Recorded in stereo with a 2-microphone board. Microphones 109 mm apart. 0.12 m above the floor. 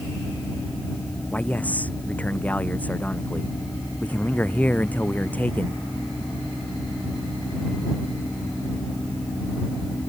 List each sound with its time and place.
1.3 s a man speaking: 15° left (ahead or behind)